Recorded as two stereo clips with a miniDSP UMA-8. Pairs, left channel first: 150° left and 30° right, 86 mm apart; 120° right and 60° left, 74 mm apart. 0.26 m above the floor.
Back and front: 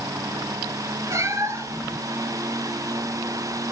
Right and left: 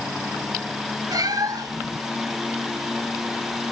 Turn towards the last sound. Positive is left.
turn(degrees=25)